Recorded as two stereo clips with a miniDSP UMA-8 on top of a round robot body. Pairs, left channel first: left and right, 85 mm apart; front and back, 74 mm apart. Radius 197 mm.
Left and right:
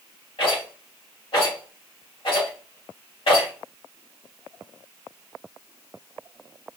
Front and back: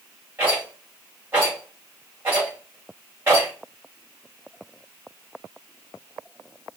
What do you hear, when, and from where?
0.4 s a rattle: 115° left, 2 m